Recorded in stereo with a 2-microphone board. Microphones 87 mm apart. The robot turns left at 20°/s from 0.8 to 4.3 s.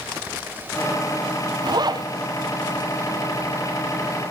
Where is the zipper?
55° right (ahead or behind), 1.2 m; by 2.1 s 50° right (ahead or behind), 1.2 m.